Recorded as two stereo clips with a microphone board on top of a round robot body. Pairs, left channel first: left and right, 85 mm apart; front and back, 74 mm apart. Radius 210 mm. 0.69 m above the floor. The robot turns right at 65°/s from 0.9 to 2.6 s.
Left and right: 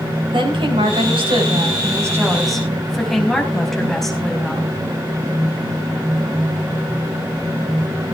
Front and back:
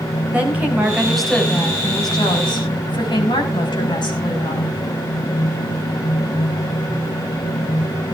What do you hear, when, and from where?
0.3 s a woman speaking: 105° right, 5.5 m; by 4.7 s 5° left, 5.5 m